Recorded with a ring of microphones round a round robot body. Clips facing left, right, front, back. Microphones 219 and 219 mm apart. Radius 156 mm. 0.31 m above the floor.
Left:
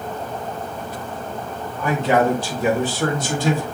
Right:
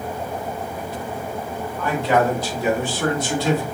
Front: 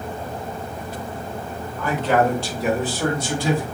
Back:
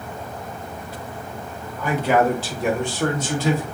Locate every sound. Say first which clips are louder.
1.8 s a man speaking: left 1 dB, back 1 dB; 140° left, 1.0 m; by 3.6 s 70° left, 1.5 m